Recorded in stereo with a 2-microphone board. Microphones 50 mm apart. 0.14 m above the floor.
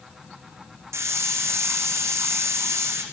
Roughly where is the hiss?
Right.